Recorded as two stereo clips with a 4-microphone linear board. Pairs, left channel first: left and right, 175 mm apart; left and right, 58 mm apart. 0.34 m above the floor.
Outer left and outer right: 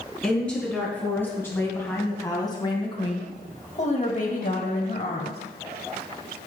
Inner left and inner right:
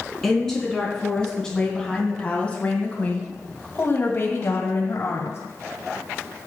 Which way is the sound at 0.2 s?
5° left (ahead or behind).